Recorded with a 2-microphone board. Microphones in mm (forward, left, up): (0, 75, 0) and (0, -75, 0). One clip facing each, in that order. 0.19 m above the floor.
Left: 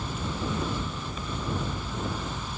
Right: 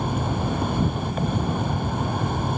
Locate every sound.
0.0 s an insect: 60° right (ahead or behind)